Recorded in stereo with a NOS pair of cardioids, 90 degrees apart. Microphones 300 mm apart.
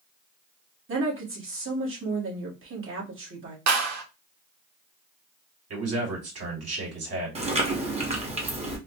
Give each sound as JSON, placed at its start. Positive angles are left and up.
{"t": 0.9, "sound": "a woman speaking", "azimuth_deg": -45, "distance_m": 2.5}
{"t": 3.7, "sound": "a clap", "azimuth_deg": -65, "distance_m": 1.4}
{"t": 5.7, "sound": "a man speaking", "azimuth_deg": -55, "distance_m": 3.0}
{"t": 7.3, "sound": "chewing", "azimuth_deg": -20, "distance_m": 1.7}